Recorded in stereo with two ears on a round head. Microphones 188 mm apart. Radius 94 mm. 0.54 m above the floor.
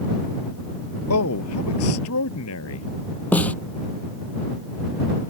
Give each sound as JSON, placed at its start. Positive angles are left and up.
{"t": 1.1, "sound": "a man speaking", "side_deg": 80}
{"t": 3.3, "sound": "a snare drum", "side_deg": 5}